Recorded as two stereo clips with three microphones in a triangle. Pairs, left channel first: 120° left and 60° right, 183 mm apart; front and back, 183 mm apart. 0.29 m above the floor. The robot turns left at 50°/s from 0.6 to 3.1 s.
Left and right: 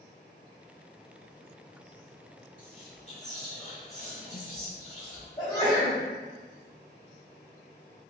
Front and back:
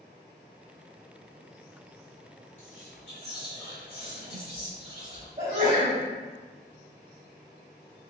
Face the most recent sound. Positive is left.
turn(degrees=180)